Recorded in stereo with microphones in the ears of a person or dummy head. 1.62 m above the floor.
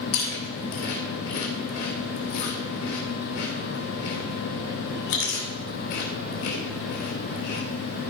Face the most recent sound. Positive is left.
turn(degrees=55)  # may be behind; listen again after turning